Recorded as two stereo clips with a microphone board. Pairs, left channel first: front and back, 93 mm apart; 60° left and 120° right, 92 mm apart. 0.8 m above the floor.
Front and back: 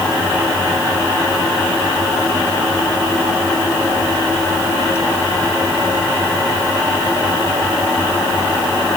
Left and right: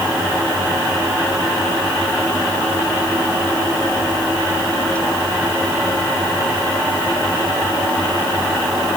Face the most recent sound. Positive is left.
No sound to turn to.